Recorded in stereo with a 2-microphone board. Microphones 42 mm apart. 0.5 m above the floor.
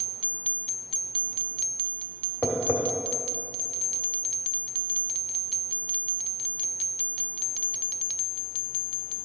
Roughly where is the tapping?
Left.